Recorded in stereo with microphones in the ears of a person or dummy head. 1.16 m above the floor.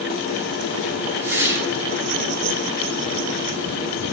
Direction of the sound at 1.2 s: 15° right (ahead or behind).